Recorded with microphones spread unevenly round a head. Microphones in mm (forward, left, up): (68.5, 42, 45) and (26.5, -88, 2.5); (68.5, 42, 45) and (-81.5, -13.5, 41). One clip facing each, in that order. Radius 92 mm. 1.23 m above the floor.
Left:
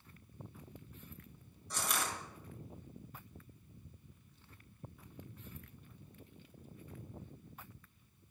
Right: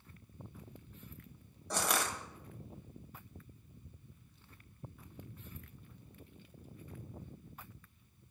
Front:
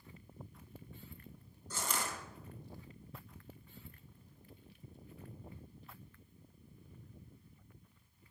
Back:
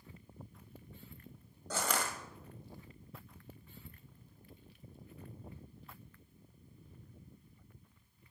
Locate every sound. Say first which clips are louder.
1.7 s crushing: right 4 dB, back 4 dB; 155° right, 1.3 m